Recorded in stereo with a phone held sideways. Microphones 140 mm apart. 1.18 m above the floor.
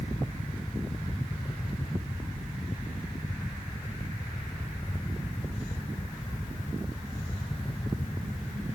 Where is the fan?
40° left (ahead or behind), 1.1 m.